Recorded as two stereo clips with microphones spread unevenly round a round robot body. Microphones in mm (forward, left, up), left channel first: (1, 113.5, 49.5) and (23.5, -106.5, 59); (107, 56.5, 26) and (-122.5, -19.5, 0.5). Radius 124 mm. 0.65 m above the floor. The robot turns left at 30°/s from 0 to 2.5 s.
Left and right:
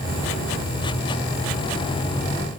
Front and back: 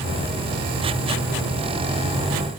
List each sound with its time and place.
Only background noise.